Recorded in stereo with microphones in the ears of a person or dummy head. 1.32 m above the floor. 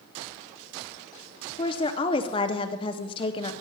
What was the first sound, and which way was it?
A woman speaking, 30° left (ahead or behind).